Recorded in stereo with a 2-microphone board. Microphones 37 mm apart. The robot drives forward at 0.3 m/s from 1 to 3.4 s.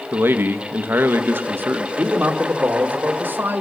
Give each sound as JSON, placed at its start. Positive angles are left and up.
{"t": 0.1, "sound": "a man speaking", "side_deg": -75, "distance_m": 1.0}
{"t": 2.0, "sound": "a man speaking", "side_deg": -75, "distance_m": 1.5}